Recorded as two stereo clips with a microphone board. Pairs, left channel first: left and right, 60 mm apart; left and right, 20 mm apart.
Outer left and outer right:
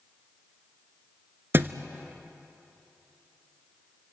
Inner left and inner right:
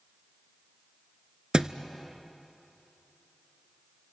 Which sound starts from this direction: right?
A thud, at 1.5 s.